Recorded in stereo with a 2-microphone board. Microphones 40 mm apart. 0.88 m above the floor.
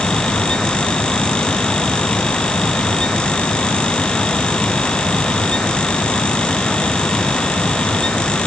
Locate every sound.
Only background noise.